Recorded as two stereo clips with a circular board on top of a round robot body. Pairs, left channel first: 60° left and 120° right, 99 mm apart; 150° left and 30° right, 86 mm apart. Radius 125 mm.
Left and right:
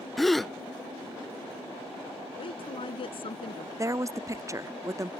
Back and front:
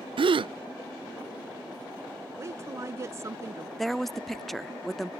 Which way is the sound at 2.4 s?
25° left.